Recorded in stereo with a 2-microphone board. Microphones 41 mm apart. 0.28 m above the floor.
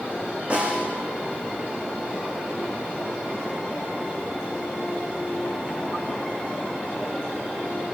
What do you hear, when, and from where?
0.5 s a snare drum: 30° right (ahead or behind), 10 m